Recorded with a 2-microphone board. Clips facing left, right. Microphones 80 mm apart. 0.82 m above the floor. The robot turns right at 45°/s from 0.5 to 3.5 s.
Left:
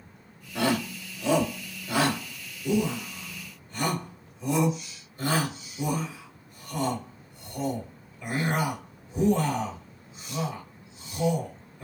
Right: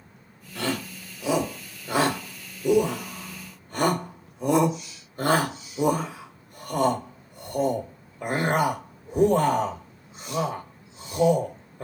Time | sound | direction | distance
0.6 | a shout | 20° left (ahead or behind) | 2.5 m